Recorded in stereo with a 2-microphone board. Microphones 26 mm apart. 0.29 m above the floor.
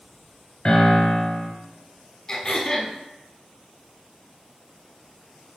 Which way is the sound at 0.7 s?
35° left (ahead or behind).